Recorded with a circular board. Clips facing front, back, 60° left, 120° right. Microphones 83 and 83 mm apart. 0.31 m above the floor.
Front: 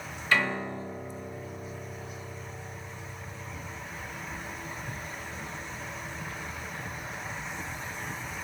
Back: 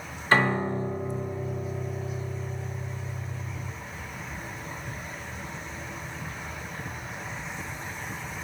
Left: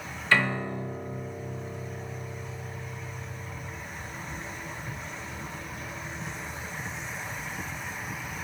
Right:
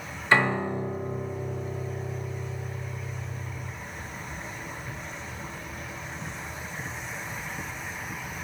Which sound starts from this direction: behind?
A piano, at 0.3 s.